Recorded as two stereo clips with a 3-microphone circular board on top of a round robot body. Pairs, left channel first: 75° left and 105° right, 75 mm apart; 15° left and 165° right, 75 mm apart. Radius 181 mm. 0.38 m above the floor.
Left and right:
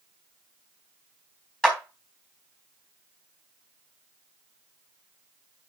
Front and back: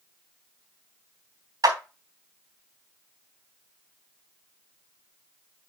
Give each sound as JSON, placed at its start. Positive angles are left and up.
{"t": 1.6, "sound": "a clap", "azimuth_deg": 155, "distance_m": 3.5}